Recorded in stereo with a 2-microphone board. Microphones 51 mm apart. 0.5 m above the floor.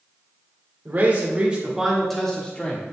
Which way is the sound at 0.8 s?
40° right (ahead or behind).